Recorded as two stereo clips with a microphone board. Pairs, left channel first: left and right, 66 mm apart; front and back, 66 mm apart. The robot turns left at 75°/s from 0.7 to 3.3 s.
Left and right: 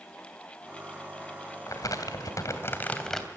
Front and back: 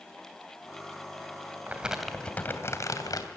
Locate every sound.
1.7 s crumpling: 120° left, 2.5 m; by 3.3 s straight ahead, 2.5 m